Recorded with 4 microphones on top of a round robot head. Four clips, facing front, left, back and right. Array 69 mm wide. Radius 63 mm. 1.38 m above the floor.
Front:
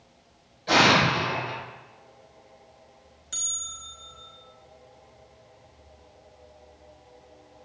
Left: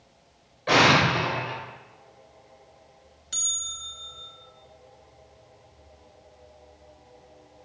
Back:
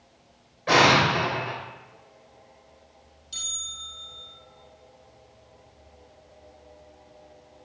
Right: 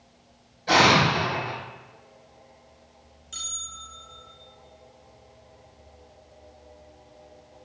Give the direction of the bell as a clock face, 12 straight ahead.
10 o'clock.